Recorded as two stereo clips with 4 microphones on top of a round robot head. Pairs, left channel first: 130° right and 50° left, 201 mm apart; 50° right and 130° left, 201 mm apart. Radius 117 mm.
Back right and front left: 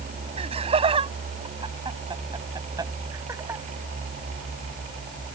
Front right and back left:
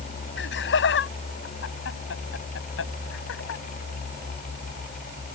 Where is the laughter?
15° right; by 3.6 s 30° right.